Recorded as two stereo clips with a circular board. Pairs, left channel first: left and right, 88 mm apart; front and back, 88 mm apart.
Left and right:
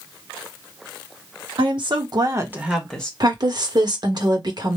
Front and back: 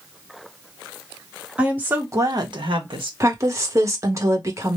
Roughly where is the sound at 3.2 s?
Behind right.